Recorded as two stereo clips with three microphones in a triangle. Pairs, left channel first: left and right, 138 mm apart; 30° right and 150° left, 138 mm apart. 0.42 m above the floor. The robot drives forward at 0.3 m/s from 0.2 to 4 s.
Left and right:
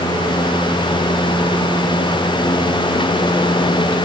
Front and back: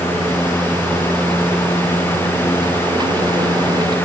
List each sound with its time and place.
Only background noise.